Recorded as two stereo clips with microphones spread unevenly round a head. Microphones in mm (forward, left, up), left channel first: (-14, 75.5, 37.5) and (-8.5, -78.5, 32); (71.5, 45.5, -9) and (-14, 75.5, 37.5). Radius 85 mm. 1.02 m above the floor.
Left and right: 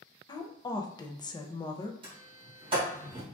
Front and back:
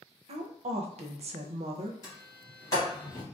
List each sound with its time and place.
0.3 s a woman speaking: 150° left, 0.6 m
2.0 s a sliding door: 35° right, 1.5 m